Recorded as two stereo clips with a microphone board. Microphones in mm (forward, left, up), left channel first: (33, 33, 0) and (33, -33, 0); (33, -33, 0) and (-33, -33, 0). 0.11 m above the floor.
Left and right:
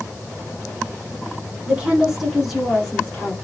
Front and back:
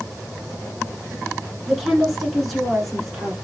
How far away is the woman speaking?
About 1.3 m.